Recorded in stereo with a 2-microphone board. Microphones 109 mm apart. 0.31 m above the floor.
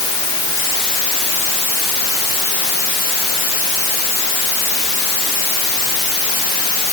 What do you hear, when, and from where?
Only background noise.